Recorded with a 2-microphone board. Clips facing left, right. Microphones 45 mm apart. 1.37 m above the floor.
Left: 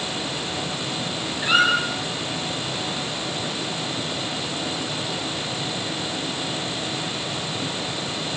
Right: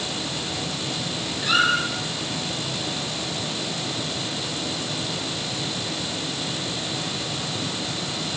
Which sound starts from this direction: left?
A squeak, at 1.4 s.